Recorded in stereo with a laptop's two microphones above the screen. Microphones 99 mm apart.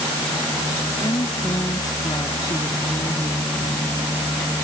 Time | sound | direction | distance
1.0 | a woman speaking | 40° left (ahead or behind) | ?